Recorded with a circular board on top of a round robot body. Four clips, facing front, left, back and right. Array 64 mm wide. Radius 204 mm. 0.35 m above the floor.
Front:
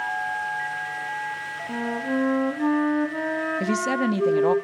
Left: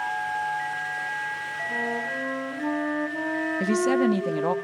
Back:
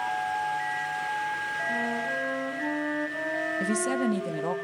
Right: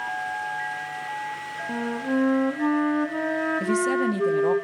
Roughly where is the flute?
Ahead right.